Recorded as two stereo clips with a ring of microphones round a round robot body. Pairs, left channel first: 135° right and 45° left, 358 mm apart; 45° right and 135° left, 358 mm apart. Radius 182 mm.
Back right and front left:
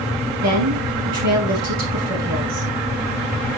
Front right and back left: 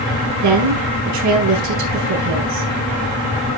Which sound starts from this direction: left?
A woman speaking, at 0.4 s.